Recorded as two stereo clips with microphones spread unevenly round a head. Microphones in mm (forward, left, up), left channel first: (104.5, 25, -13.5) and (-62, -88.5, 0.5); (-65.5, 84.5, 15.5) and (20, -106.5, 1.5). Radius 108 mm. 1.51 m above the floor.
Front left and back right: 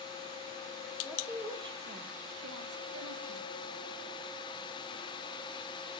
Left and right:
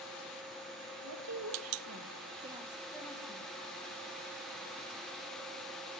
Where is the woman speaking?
60° right, 1.9 m; by 3.5 s straight behind, 2.0 m.